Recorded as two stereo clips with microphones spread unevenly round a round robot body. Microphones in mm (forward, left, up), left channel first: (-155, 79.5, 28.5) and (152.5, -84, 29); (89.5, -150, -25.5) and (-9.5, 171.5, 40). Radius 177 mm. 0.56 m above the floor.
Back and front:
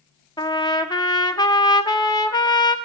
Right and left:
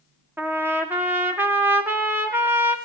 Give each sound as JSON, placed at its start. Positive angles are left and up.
{"t": 0.4, "sound": "a trumpet", "azimuth_deg": -150, "distance_m": 0.9}